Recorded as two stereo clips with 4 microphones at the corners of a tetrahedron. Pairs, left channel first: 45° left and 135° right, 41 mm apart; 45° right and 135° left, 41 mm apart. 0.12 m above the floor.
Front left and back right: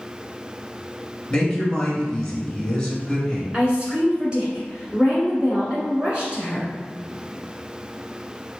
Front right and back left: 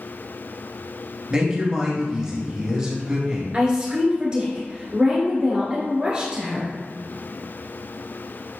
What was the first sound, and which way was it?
A woman speaking, 100° left.